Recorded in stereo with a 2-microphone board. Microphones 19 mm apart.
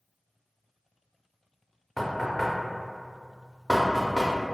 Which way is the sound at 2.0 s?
20° left (ahead or behind).